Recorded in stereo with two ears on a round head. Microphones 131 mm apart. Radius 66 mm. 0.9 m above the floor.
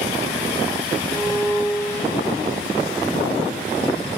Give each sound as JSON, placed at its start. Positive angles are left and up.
{"t": 1.1, "sound": "a violin", "side_deg": 20, "distance_m": 1.2}